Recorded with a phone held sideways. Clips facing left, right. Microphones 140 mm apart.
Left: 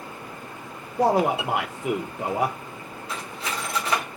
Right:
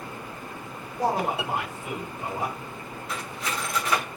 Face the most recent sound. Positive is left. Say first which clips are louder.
# left 1 dB
turn(degrees=30)  # may be behind; listen again after turning